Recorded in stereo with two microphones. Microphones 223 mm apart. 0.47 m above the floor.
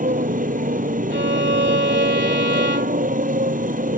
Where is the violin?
55° right (ahead or behind).